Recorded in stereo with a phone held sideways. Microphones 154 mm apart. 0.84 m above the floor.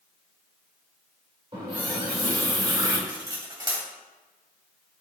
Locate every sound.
1.5 s a running tap: 35° right (ahead or behind), 2.0 m
3.1 s cutlery clinking: 30° right (ahead or behind), 1.9 m